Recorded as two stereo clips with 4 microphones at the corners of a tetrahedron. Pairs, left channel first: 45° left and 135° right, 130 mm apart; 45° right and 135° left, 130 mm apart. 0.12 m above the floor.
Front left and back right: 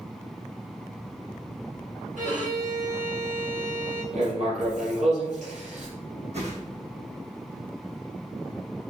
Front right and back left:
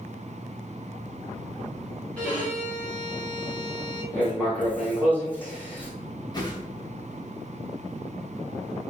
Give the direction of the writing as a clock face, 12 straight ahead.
4 o'clock.